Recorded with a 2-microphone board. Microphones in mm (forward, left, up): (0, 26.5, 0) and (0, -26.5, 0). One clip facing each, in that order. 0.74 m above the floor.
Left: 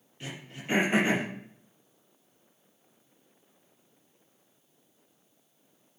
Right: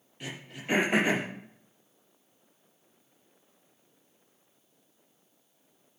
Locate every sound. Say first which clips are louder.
0.2 s throat clearing: right 1 dB; 15° right (ahead or behind), 5.5 m